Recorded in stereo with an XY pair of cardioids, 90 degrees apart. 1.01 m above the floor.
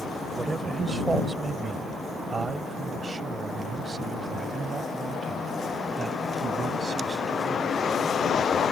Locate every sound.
0.4 s a man speaking: 30° right; by 8.0 s 55° right